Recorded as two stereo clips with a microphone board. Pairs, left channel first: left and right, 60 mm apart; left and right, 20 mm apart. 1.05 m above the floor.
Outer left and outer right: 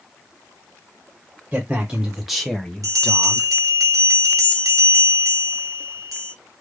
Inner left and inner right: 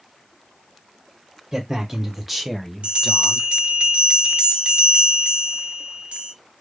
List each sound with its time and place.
1.5 s a man speaking: 15° right (ahead or behind), 1.0 m; by 3.5 s 20° left (ahead or behind), 1.3 m
2.8 s a bell: 70° right (ahead or behind), 0.9 m